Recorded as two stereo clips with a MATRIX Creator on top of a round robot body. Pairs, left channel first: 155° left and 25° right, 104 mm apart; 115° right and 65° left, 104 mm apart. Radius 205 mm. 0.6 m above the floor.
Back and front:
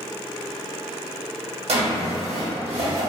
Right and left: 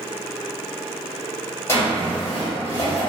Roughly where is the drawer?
Ahead right.